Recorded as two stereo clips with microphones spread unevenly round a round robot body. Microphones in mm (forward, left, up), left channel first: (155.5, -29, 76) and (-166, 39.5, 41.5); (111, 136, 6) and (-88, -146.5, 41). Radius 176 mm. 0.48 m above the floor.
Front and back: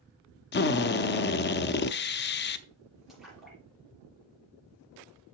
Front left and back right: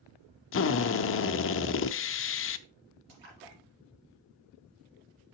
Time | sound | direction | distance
0.5 | a drill | 40° left | 0.5 m
3.1 | a splash | 100° right | 4 m